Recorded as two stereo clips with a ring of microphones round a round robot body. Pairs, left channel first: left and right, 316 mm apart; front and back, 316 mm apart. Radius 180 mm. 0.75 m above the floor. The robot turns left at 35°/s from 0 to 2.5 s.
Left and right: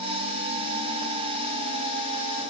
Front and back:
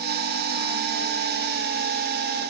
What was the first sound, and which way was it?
Only background noise.